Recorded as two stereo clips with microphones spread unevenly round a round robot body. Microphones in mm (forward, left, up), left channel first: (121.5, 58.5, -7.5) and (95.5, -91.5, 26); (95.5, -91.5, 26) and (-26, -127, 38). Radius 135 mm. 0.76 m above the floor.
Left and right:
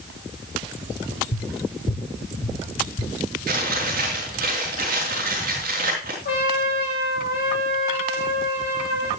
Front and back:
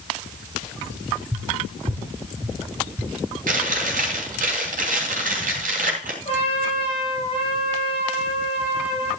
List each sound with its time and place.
1.3 s tapping: 115° left, 2 m
3.5 s chewing: 160° right, 3 m
6.2 s a trumpet: 80° left, 7.5 m